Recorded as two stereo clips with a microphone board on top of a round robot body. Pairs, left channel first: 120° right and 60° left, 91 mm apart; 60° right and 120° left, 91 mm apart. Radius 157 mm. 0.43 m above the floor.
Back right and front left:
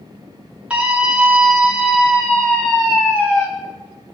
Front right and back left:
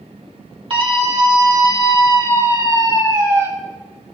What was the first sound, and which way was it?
A scream, 135° left.